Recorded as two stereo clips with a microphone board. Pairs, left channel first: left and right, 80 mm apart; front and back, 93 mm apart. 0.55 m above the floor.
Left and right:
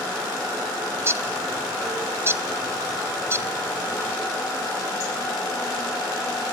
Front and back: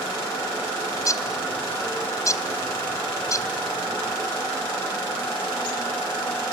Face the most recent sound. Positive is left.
turn(degrees=-40)